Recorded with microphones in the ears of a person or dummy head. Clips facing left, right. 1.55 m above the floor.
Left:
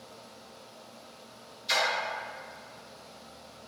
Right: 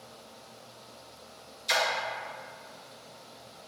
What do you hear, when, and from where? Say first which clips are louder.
1.7 s a splash: right 1 dB; 55° right (ahead or behind), 0.5 m